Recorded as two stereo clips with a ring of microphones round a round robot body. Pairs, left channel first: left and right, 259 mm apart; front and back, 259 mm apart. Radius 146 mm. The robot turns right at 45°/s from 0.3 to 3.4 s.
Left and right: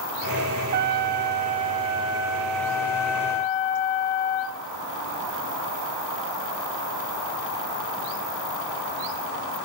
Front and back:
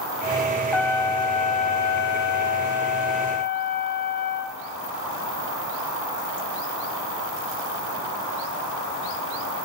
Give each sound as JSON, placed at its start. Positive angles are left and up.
{"t": 0.7, "sound": "a trumpet", "azimuth_deg": -80, "distance_m": 0.5}